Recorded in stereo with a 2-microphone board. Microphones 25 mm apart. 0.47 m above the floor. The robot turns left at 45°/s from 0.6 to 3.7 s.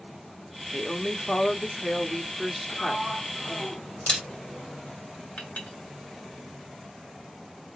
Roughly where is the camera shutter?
Left.